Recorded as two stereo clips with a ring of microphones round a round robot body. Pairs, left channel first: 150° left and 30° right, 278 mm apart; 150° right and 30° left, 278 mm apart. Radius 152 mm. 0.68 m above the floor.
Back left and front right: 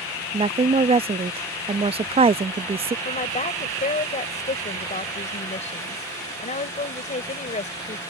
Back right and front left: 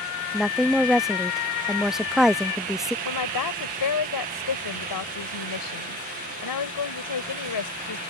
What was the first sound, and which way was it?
A woman speaking, 55° right.